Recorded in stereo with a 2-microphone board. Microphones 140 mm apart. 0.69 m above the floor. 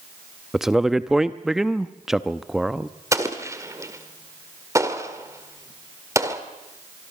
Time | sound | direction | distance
0.5 | a man speaking | 5° right (ahead or behind) | 0.6 m
3.1 | an explosion | 20° right (ahead or behind) | 1.8 m